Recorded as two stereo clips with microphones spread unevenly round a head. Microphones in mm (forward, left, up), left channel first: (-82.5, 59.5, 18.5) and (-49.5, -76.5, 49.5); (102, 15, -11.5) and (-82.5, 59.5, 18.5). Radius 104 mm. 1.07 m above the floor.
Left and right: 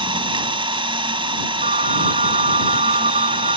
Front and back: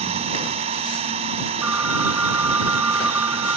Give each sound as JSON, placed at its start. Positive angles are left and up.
{"t": 0.0, "sound": "an engine running", "azimuth_deg": -130}
{"t": 1.6, "sound": "a phone ringing", "azimuth_deg": -115}